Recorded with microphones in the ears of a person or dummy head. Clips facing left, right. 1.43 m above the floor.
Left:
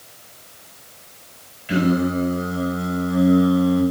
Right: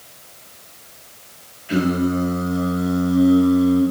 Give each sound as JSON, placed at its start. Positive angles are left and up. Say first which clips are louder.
{"t": 1.7, "sound": "singing", "louder": "even", "side_deg": 30, "distance_m": 3.5}